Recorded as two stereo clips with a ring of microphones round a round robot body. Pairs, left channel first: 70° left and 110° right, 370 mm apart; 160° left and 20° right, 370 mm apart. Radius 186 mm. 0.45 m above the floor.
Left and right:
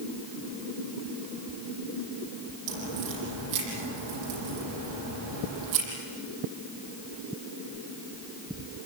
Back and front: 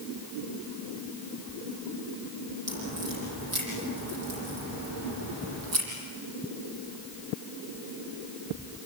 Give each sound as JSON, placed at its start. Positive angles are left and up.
{"t": 2.7, "sound": "a crack", "azimuth_deg": -75, "distance_m": 8.0}